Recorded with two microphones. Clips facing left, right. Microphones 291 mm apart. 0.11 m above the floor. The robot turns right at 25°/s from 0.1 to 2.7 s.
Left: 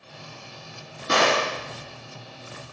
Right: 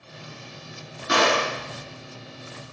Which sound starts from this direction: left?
A gunshot, at 1.1 s.